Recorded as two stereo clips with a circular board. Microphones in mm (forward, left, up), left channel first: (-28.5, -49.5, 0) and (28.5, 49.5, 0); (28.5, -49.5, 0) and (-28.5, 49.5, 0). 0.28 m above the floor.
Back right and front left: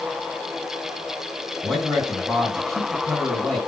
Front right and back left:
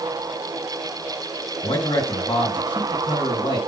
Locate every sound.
1.6 s a man speaking: 35° right, 3 m